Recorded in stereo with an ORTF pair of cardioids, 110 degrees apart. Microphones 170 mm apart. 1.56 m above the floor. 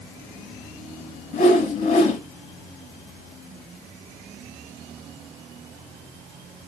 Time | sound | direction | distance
1.3 | a whoosh | 45° left | 1.9 m